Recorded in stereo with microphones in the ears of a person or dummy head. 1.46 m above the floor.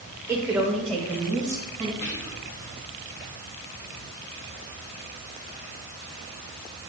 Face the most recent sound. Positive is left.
turn(degrees=80)